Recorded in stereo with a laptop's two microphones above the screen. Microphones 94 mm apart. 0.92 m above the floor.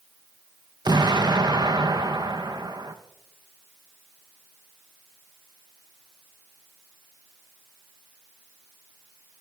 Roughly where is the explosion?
Right.